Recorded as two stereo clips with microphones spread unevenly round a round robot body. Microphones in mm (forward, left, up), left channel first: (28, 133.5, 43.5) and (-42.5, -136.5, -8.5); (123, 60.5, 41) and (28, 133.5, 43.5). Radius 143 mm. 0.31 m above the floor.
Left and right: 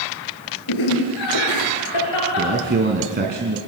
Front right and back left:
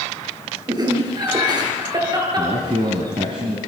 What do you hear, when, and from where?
0.7 s laughter: 85° left, 6.5 m
2.4 s a man speaking: 160° right, 3 m